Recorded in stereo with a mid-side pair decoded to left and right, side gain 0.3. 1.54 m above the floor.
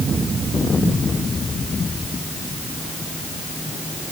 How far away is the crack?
No crack in this recording.